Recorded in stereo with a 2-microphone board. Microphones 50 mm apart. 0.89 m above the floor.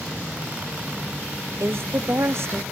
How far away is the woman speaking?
About 0.8 m.